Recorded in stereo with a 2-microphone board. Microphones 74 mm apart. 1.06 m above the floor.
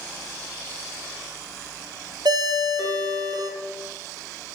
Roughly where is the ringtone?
Right.